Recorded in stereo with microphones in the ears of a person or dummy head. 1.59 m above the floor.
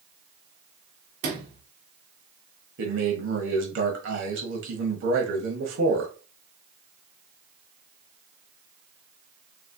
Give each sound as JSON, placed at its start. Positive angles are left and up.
{"t": 1.2, "sound": "a sliding door", "side_deg": -50, "distance_m": 1.2}
{"t": 2.8, "sound": "a man speaking", "side_deg": -65, "distance_m": 1.2}